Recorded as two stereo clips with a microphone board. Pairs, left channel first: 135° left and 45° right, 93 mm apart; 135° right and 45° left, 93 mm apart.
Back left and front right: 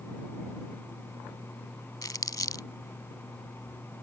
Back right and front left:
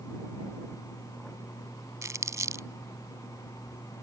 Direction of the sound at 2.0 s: 95° left.